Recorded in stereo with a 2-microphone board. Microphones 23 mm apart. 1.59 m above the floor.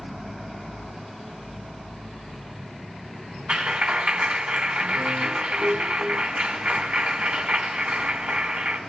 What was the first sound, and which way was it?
A clap, 80° right.